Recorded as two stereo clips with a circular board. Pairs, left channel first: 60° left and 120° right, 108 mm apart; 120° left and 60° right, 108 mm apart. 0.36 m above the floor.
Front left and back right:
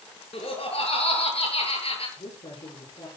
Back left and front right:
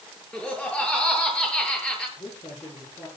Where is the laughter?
40° left, 7.5 m.